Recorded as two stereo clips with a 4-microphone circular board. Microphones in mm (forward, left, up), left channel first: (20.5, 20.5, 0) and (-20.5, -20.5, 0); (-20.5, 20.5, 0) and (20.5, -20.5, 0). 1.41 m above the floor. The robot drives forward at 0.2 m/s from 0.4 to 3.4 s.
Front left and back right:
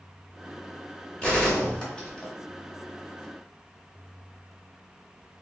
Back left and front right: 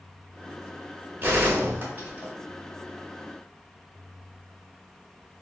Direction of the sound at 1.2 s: 15° right.